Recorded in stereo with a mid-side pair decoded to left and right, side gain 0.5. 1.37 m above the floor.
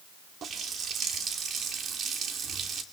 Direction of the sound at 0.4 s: 50° right.